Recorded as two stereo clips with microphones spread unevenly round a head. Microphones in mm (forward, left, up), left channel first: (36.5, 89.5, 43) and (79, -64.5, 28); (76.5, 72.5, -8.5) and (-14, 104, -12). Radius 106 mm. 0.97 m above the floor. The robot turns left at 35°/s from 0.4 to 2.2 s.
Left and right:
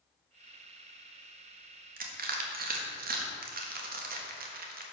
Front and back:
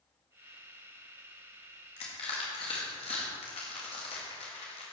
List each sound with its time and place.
2.0 s crushing: 55° right, 1.4 m; by 4.8 s 65° right, 1.4 m